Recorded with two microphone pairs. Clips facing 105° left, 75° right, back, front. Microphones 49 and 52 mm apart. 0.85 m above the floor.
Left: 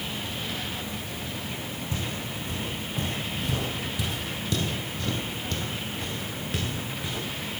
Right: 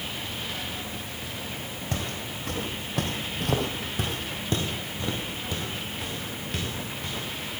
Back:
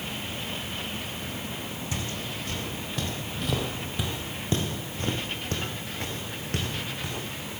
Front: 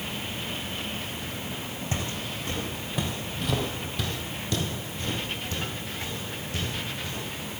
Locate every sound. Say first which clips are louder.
1.9 s footsteps: right 2 dB, front 2 dB; 55° right, 2.5 m; by 7.2 s 170° right, 4 m